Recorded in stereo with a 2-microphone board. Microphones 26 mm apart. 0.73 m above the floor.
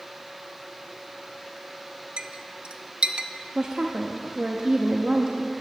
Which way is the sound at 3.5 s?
35° right (ahead or behind).